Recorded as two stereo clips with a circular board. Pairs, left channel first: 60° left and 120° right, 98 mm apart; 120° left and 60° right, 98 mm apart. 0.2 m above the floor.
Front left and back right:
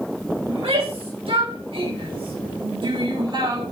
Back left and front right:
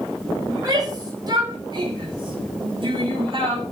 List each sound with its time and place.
0.5 s a shout: 110° right, 9.5 m; by 3.6 s 85° right, 9.5 m